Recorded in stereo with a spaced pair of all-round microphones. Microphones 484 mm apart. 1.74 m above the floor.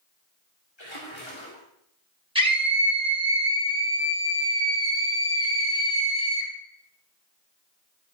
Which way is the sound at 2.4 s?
10° right (ahead or behind).